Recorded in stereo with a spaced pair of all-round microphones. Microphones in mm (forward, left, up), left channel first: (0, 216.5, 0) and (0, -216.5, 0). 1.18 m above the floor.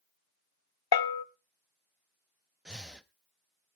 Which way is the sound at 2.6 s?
Centre (ahead or behind).